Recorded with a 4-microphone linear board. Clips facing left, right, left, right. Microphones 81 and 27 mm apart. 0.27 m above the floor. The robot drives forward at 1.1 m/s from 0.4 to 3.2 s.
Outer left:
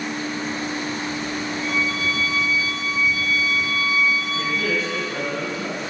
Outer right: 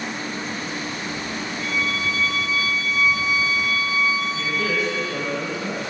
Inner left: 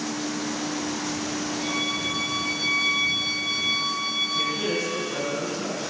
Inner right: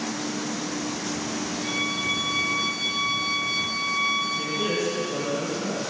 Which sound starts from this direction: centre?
A violin, at 1.6 s.